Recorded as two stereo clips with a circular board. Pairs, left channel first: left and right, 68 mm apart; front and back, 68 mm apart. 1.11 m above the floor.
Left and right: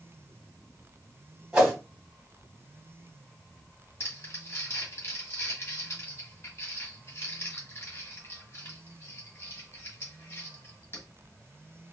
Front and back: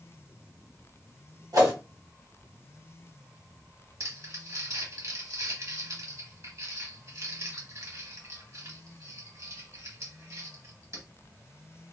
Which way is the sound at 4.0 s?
140° left.